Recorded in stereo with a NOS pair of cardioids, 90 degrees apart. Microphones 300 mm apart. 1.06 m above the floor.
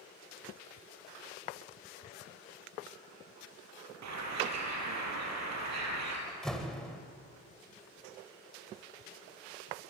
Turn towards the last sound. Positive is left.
turn(degrees=0)